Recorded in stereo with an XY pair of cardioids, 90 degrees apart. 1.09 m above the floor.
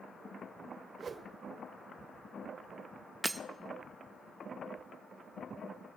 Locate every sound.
1.0 s a whoosh: 45° right, 0.6 m
3.2 s breaking glass: 15° right, 0.6 m